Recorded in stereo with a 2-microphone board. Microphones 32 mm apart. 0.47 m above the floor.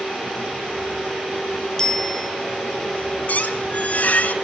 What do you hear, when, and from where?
1.8 s a bicycle bell: 20° left (ahead or behind), 4.5 m
3.3 s a squeak: 60° left (ahead or behind), 1.8 m